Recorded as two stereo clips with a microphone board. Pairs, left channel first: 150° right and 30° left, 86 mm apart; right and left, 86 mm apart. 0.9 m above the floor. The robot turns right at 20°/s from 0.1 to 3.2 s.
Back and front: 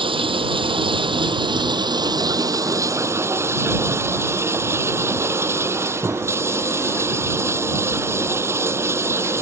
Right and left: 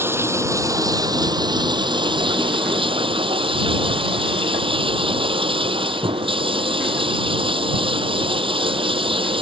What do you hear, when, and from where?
0.0 s running water: 25° left; by 9.4 s 90° left